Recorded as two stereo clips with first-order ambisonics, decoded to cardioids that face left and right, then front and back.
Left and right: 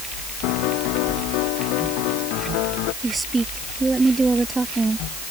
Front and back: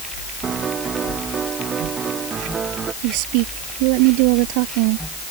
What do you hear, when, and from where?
0.4 s a piano: 110° left
3.0 s a woman speaking: 170° right